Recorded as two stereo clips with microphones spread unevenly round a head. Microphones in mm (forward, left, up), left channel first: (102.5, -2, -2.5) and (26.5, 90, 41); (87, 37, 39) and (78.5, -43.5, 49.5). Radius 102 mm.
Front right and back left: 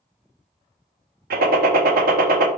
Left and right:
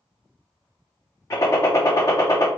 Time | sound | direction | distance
1.3 | a gunshot | 145° left | 0.5 m